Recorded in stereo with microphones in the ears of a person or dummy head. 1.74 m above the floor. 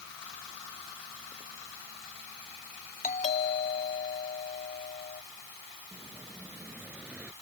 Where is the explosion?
5° right (ahead or behind).